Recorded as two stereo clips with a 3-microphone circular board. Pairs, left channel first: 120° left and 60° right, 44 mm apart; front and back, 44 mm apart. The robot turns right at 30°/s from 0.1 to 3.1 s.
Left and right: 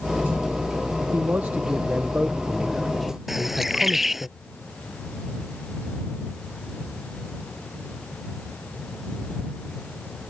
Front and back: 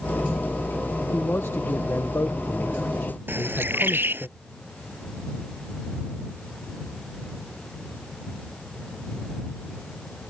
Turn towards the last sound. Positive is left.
turn(degrees=-145)